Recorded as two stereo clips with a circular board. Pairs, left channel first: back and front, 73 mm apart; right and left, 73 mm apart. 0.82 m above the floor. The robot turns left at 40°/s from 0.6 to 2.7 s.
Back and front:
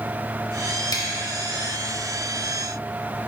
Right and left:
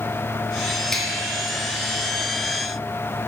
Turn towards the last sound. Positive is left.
turn(degrees=120)